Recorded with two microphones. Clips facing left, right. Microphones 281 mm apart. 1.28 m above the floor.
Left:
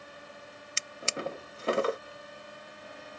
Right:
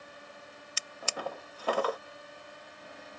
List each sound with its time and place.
0.8 s a drawer: 25° left (ahead or behind)